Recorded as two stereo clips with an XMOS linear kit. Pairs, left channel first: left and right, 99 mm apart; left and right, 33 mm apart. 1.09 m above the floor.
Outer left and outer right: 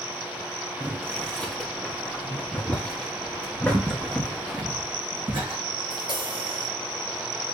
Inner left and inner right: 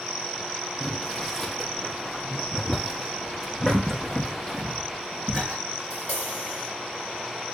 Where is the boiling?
10° left (ahead or behind), 1.1 m.